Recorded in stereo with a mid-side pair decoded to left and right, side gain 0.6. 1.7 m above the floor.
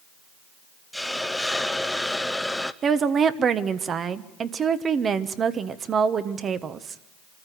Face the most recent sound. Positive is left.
turn(degrees=-40)